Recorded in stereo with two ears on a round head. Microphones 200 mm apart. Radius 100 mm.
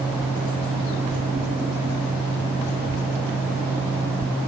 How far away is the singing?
I don't hear singing.